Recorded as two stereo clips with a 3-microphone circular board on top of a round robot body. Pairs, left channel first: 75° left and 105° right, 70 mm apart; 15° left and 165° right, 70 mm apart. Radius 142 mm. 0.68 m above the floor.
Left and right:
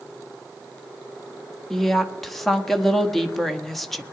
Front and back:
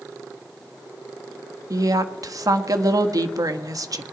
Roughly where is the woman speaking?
Behind.